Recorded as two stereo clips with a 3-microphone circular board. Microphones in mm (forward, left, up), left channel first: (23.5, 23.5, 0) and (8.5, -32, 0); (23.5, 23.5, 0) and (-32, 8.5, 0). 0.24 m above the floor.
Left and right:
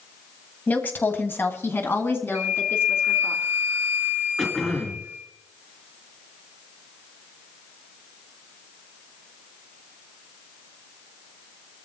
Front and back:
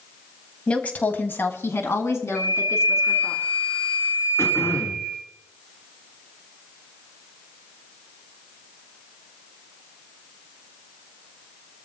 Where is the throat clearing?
5° right, 3.5 m.